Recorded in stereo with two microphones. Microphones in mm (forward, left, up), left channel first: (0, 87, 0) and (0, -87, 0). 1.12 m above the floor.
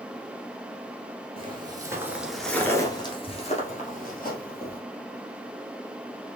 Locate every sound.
1.4 s footsteps: 35° right (ahead or behind), 1.3 m; by 4.8 s 60° left (ahead or behind), 2 m